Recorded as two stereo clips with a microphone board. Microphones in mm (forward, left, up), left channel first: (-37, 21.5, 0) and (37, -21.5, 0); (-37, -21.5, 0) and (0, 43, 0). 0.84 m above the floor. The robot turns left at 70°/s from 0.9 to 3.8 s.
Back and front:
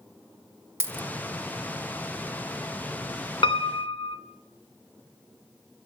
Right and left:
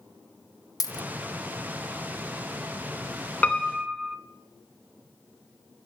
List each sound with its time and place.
0.8 s a dropped coin: 90° right, 0.6 m; by 1.1 s 105° right, 0.6 m
3.4 s a piano: 175° left, 2 m; by 4.2 s 150° left, 2 m